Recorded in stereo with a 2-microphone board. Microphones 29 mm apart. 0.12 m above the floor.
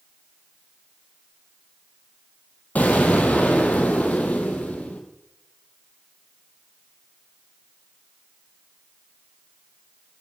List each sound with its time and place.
2.8 s an explosion: 65° left (ahead or behind), 2 m